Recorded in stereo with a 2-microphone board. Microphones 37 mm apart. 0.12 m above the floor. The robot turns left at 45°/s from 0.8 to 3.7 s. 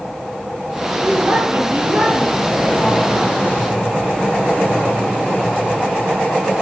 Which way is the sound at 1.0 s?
90° right.